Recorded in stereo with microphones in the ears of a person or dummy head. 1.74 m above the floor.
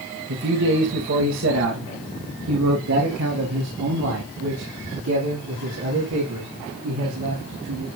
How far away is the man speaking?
About 3 m.